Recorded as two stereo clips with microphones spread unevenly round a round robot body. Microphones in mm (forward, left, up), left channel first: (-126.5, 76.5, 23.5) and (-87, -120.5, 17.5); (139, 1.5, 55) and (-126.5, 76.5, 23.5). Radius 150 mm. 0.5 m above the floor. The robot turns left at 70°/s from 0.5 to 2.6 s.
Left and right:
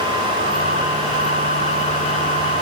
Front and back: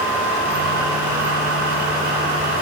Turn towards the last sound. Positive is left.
No sound to turn to.